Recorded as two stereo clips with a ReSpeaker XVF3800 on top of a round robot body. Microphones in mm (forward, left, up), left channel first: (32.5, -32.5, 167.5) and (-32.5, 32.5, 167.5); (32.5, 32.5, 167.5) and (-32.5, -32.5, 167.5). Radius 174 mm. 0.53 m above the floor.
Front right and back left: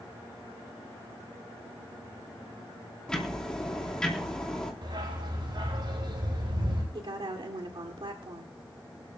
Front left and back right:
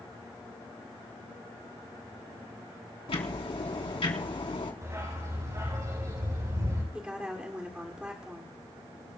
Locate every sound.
3.1 s ticking: 35° left, 3.5 m
4.8 s a dog barking: 170° left, 7.5 m
6.9 s a woman speaking: 150° left, 2 m